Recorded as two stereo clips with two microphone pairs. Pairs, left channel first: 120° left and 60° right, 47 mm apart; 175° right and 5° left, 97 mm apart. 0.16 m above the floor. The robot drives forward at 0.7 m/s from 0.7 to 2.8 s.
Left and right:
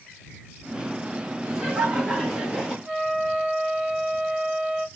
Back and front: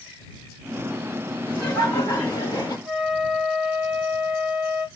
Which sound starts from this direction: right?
Laughter, at 1.5 s.